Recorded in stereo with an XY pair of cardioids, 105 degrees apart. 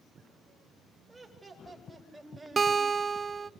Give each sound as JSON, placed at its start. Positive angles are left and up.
{"t": 1.1, "sound": "laughter", "azimuth_deg": -5, "distance_m": 9.5}
{"t": 2.6, "sound": "a guitar", "azimuth_deg": -35, "distance_m": 0.7}